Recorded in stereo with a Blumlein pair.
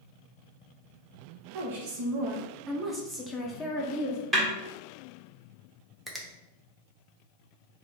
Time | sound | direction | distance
1.5 | a woman speaking | 55° right | 1.3 m
4.3 | a snare drum | 15° right | 1.5 m
6.1 | a finger snap | 5° right | 0.7 m